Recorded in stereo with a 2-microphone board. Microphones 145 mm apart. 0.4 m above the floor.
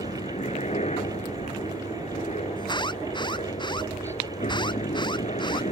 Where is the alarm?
30° left (ahead or behind).